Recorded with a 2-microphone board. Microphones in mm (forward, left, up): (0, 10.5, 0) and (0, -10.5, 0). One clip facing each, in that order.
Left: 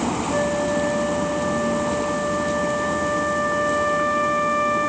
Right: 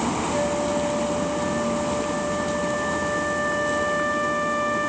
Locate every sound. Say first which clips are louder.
0.3 s a flute: left 4 dB; 25° left (ahead or behind), 1.8 m